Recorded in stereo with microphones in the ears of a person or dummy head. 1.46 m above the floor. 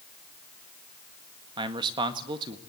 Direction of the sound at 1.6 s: 25° right (ahead or behind).